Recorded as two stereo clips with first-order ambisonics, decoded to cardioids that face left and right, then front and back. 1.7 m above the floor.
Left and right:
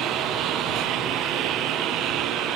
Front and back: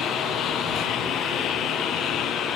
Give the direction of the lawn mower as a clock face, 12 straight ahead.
2 o'clock.